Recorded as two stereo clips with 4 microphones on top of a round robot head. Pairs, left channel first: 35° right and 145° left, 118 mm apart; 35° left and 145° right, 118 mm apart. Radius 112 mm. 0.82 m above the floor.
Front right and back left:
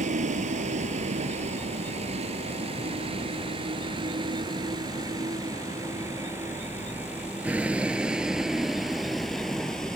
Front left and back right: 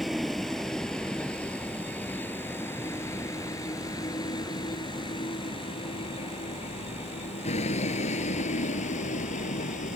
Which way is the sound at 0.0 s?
125° left.